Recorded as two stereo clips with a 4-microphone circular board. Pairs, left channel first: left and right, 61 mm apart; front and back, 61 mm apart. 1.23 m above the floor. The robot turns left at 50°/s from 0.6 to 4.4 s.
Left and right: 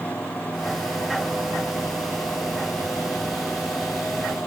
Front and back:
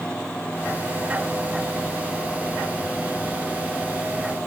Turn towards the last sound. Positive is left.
No sound to turn to.